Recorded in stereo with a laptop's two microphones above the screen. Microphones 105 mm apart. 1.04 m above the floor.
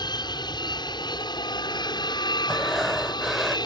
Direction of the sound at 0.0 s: 45° left (ahead or behind).